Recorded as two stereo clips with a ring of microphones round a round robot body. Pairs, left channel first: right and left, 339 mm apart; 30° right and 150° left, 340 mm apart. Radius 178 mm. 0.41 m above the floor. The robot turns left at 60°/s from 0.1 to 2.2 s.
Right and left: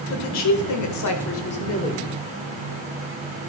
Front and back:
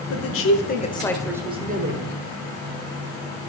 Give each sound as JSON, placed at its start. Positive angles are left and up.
{"t": 0.1, "sound": "a woman speaking", "azimuth_deg": -55, "distance_m": 1.5}